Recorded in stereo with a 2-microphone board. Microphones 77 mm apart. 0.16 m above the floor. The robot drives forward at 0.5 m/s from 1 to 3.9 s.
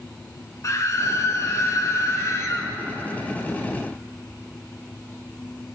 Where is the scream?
45° left (ahead or behind), 2 m; by 2.7 s 40° left (ahead or behind), 2.5 m.